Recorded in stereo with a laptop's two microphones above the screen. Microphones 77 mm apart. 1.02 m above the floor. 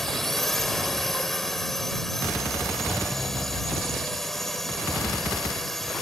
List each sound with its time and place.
0.0 s a drone: 5° left (ahead or behind)